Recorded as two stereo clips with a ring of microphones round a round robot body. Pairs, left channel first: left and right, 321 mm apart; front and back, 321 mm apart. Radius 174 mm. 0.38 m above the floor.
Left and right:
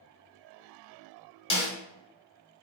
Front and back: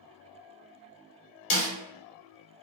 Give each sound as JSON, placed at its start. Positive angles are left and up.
{"t": 1.5, "sound": "a snare drum", "azimuth_deg": 40, "distance_m": 1.1}